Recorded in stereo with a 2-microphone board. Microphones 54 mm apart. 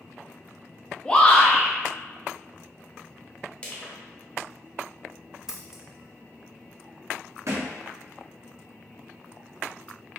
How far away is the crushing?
About 0.9 m.